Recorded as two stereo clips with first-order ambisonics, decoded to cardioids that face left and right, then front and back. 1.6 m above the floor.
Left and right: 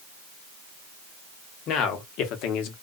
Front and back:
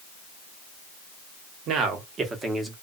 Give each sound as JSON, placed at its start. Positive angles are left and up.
{"t": 1.7, "sound": "a man speaking", "azimuth_deg": 135, "distance_m": 0.9}